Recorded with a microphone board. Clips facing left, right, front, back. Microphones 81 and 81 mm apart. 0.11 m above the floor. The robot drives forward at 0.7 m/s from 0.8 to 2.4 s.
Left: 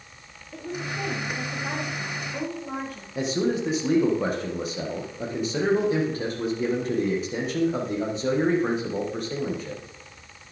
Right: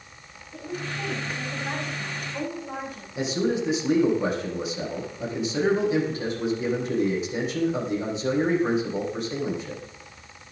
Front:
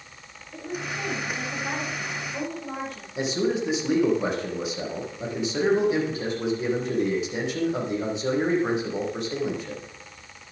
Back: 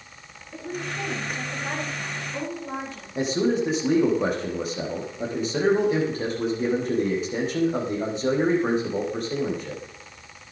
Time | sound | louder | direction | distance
0.5 | a woman speaking | left 1 dB, back 1 dB | 110° left | 8 m
3.1 | a man speaking | even, back 2 dB | 135° left | 5.5 m